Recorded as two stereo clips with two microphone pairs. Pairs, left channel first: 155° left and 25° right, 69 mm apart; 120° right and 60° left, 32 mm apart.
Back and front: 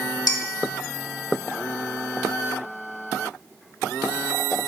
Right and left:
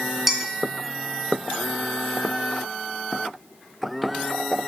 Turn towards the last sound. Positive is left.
turn(degrees=140)